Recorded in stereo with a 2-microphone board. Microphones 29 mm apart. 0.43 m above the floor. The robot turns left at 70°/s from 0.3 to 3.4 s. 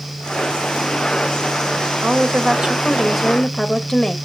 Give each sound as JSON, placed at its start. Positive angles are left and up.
{"t": 2.0, "sound": "a woman speaking", "azimuth_deg": -105, "distance_m": 1.4}